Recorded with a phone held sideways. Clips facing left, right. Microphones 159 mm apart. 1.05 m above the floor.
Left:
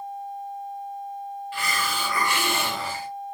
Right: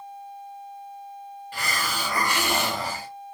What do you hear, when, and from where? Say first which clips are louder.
1.5 s a hiss: even; 40° right (ahead or behind), 1.3 m